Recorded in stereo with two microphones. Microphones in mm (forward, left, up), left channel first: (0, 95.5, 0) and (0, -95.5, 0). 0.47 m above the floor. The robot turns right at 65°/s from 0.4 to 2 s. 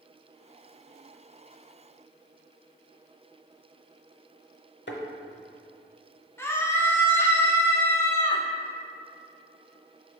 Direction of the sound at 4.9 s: 70° left (ahead or behind).